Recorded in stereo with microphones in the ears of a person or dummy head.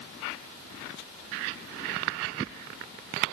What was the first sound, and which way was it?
Only background noise.